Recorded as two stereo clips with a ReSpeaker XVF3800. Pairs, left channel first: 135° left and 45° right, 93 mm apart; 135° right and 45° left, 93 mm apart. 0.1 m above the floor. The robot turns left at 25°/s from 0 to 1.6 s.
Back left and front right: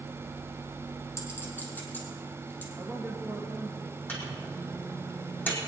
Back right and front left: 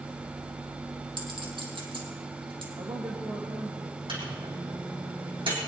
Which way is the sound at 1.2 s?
75° left.